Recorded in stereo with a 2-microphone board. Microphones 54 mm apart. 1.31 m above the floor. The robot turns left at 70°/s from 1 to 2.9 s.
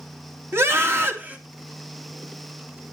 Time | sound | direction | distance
0.5 | a scream | 50° right (ahead or behind) | 3 m